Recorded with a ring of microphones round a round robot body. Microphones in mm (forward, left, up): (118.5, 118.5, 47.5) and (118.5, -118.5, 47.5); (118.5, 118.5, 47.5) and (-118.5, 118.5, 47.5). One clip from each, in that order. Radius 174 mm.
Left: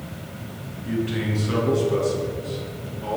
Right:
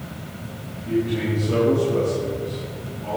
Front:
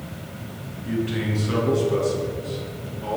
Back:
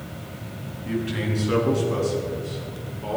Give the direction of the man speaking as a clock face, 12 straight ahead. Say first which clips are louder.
Right 3 dB, front 1 dB; 8 o'clock.